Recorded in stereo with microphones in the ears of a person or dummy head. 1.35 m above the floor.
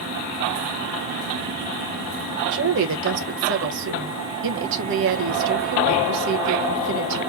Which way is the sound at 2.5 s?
65° right (ahead or behind).